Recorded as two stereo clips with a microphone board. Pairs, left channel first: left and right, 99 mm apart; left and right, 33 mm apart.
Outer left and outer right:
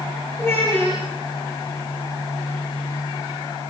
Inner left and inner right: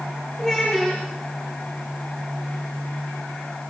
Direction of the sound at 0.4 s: 25° left (ahead or behind).